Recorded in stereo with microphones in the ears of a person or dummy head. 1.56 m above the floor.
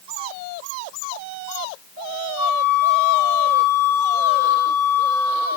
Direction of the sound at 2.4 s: 5° right (ahead or behind).